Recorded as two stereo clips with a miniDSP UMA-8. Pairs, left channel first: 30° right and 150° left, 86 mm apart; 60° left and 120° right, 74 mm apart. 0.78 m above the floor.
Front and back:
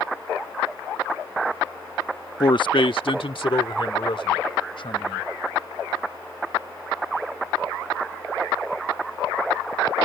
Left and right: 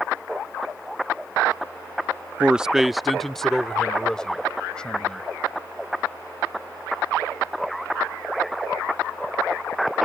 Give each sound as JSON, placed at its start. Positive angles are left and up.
{"t": 2.4, "sound": "a man speaking", "azimuth_deg": -55}